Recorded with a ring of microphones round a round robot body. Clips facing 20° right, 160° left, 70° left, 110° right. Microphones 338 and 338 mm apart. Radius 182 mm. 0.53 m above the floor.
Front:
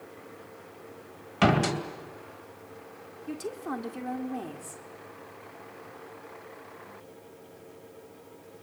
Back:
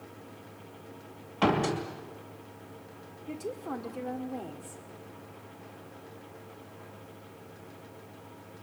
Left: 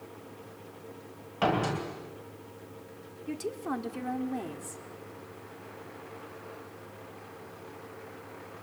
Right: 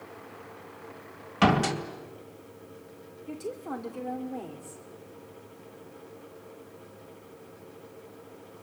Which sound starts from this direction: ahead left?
A woman speaking, at 3.3 s.